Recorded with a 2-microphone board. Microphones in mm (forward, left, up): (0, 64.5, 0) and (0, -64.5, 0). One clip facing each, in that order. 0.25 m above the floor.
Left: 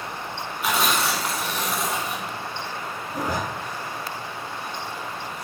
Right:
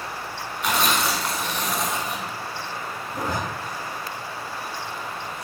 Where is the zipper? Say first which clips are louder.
Left 1 dB; 20° left (ahead or behind), 1.8 m.